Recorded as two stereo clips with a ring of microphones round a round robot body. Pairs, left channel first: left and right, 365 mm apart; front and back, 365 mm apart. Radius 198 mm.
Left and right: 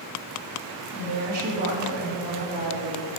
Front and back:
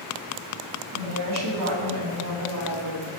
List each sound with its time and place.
0.9 s a woman speaking: 155° right, 2.5 m